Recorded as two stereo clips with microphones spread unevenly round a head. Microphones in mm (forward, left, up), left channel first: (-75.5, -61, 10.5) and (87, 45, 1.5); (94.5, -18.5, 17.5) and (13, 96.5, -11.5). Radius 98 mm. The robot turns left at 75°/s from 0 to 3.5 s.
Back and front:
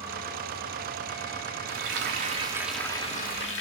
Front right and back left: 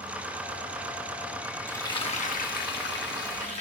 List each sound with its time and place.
1.7 s frying: 20° left, 2 m; by 3.6 s 115° right, 2 m